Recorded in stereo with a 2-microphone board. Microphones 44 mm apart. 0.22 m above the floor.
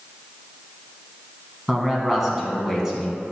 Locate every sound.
1.7 s a man speaking: 10° right (ahead or behind), 1.6 m